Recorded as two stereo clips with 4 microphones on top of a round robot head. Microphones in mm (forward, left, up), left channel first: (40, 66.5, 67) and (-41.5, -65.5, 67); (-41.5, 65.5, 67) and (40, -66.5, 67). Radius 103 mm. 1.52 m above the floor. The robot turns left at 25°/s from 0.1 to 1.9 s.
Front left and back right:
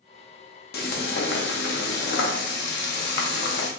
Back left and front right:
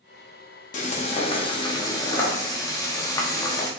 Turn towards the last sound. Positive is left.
turn(degrees=50)